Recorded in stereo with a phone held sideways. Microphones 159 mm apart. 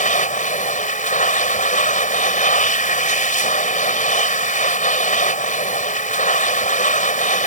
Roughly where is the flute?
I don't hear a flute.